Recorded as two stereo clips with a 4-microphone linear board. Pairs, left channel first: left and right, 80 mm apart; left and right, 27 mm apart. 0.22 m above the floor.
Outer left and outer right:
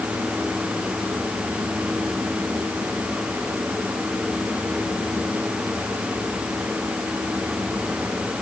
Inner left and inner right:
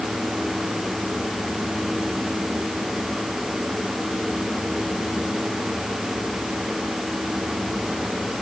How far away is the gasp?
I don't hear a gasp.